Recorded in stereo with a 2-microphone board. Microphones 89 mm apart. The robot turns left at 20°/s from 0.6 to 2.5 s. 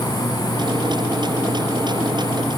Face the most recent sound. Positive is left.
No sound to turn to.